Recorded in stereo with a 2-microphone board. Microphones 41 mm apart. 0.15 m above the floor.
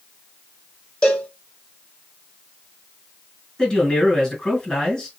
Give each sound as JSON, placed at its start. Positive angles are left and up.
{"t": 1.0, "sound": "a cowbell", "side_deg": 25, "distance_m": 1.2}
{"t": 3.6, "sound": "a man speaking", "side_deg": 20, "distance_m": 2.0}